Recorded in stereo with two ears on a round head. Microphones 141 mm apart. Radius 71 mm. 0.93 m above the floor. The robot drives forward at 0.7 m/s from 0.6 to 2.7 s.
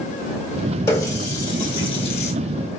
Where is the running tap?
20° left (ahead or behind), 1.7 m; by 2.3 s 45° left (ahead or behind), 0.8 m.